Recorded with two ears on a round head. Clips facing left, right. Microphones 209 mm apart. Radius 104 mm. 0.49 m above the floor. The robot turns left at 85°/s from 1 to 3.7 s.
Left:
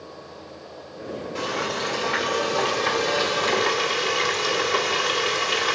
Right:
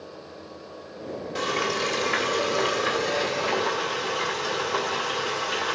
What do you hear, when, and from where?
1.4 s frying: 35° right, 1.8 m; by 5.8 s 125° left, 1.8 m